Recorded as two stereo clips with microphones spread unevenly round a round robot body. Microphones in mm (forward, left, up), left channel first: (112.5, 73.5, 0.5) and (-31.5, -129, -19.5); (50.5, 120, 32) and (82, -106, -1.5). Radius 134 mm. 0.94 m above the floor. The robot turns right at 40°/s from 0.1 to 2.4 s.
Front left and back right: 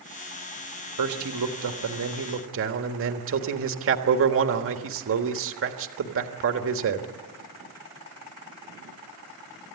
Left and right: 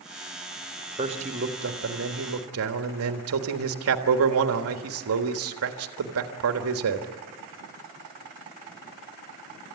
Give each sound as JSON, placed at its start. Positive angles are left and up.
{"t": 1.0, "sound": "a man speaking", "azimuth_deg": -150, "distance_m": 1.5}